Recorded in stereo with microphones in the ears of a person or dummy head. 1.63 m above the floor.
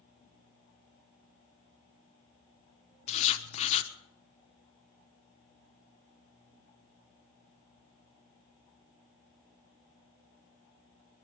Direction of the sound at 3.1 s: 35° left (ahead or behind).